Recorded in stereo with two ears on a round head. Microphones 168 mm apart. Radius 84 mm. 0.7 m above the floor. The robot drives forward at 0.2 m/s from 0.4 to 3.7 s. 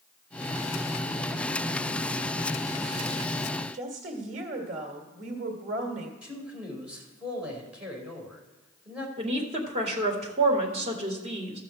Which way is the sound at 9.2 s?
35° right (ahead or behind).